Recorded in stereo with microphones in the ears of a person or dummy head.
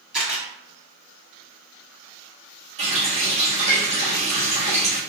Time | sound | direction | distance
0.1 | a camera shutter | centre (ahead or behind) | 1.5 m
2.8 | a running tap | 40° right (ahead or behind) | 1.5 m